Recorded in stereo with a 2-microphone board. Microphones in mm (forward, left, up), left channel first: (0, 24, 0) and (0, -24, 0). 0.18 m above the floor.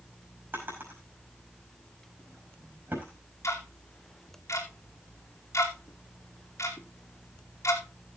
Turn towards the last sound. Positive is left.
turn(degrees=80)